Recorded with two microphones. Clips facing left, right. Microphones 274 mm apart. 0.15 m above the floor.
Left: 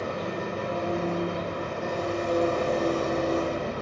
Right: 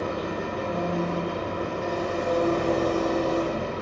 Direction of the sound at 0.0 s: 70° right (ahead or behind).